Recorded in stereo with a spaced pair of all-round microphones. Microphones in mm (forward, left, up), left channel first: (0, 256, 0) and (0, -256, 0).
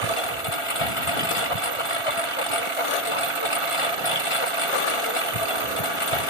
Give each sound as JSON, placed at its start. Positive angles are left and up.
{"t": 0.0, "sound": "a lawn mower", "side_deg": 75}